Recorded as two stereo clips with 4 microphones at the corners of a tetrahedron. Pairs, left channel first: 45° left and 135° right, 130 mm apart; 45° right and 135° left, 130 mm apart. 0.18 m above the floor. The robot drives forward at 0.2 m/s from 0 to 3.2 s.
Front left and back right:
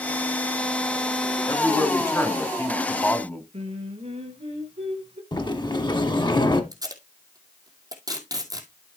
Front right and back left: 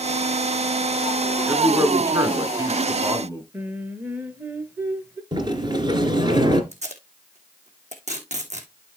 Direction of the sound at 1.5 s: 85° left.